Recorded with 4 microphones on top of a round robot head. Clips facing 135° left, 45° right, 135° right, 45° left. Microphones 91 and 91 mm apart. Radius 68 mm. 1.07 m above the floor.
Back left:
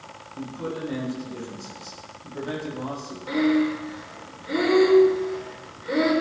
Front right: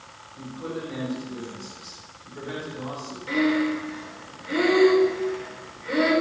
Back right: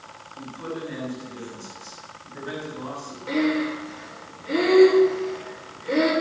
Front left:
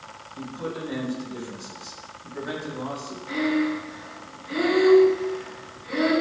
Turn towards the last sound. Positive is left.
turn(degrees=-155)